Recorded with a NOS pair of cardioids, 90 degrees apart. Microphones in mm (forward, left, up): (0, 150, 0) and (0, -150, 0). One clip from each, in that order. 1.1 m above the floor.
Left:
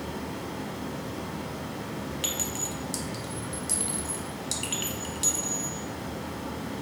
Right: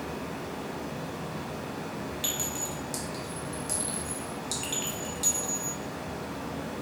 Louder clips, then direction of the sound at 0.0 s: Even; 25° left.